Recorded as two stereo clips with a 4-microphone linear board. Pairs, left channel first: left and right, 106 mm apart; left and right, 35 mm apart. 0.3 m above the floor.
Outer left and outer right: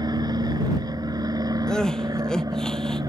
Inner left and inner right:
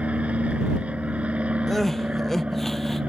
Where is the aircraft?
40° right (ahead or behind); by 3.1 s 35° right (ahead or behind).